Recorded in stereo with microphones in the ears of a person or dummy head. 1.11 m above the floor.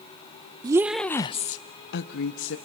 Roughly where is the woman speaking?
Right.